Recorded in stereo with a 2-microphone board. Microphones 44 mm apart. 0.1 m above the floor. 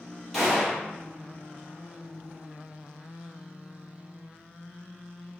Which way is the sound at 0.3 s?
5° left (ahead or behind).